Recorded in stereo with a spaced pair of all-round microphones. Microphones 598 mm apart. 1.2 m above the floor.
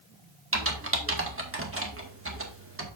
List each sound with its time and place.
0.5 s typing on a keyboard: 20° right (ahead or behind), 1.6 m